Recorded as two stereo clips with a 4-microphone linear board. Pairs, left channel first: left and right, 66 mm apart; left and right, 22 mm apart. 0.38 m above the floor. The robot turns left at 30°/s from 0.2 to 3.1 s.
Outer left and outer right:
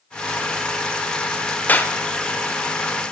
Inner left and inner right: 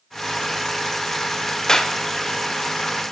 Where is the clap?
25° left (ahead or behind), 0.8 m.